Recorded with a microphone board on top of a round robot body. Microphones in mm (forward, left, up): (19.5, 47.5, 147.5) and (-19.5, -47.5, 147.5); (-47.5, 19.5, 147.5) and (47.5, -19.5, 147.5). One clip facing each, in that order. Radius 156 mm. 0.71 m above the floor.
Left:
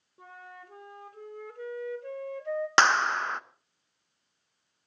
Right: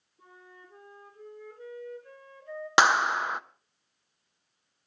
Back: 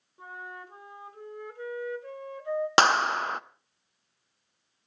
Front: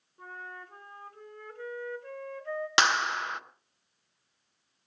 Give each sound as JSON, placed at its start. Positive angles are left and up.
{"t": 0.2, "sound": "a flute", "azimuth_deg": 80, "distance_m": 1.6}
{"t": 2.8, "sound": "a clap", "azimuth_deg": 170, "distance_m": 0.9}